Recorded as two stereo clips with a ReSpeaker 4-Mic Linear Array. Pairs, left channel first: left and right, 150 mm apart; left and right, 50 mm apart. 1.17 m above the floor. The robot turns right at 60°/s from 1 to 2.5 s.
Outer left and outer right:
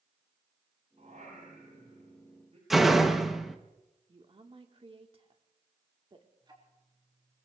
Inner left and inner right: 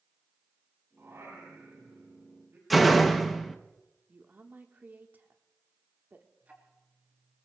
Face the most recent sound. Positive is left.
turn(degrees=-35)  # may be behind; listen again after turning